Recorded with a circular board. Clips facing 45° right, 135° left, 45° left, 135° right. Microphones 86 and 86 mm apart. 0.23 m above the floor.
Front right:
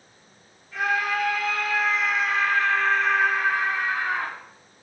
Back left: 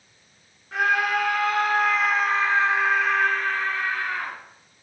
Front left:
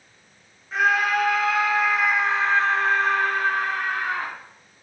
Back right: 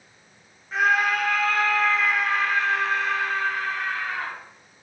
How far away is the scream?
About 2.5 m.